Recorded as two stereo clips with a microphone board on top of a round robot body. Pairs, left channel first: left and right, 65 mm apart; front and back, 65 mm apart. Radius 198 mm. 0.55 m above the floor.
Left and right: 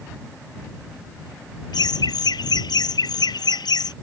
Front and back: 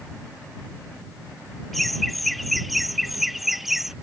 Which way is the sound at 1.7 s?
90° left.